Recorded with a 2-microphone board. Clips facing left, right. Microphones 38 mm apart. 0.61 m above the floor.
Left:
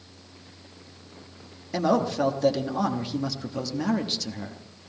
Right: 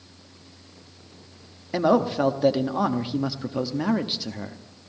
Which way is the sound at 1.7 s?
15° right (ahead or behind).